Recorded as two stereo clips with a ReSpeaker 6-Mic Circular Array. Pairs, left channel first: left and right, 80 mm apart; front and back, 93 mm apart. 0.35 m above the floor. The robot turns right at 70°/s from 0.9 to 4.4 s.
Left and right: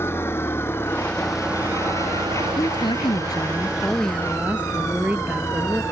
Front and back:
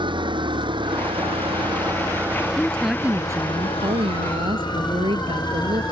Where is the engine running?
150° left; by 5.9 s 35° left.